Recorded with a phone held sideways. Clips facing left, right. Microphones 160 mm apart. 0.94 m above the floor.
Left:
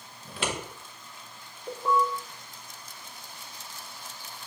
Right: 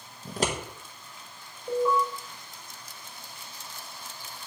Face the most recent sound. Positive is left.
turn(degrees=65)  # may be behind; listen again after turning